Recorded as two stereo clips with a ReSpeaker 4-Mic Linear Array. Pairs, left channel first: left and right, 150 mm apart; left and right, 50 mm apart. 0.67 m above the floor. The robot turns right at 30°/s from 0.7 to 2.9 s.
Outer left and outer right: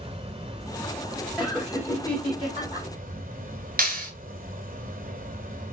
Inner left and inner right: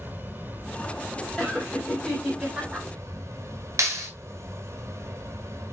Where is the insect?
140° right, 2.5 m; by 5.7 s 75° right, 2.5 m.